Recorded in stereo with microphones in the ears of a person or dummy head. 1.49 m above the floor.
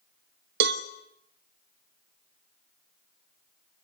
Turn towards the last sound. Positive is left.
turn(degrees=-55)  # may be behind; listen again after turning